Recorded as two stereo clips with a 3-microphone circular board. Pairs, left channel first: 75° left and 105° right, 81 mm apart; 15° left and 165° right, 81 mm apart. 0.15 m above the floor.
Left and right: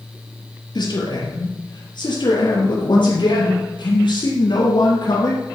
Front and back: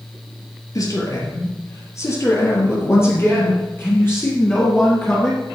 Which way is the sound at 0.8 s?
55° left.